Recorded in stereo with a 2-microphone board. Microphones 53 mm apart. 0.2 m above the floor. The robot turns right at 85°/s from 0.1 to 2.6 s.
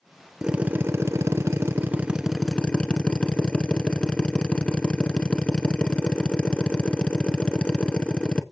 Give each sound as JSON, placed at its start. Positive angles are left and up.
{"t": 0.4, "sound": "a drill", "azimuth_deg": -165, "distance_m": 0.9}